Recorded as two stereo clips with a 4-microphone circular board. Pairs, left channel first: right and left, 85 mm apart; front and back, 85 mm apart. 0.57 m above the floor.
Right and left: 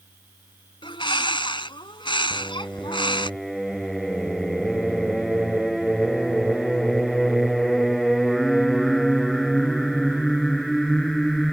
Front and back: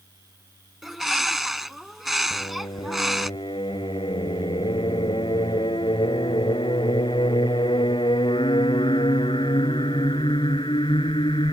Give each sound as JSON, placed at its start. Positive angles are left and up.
{"t": 0.8, "sound": "a bird", "azimuth_deg": -90}
{"t": 2.3, "sound": "singing", "azimuth_deg": 0}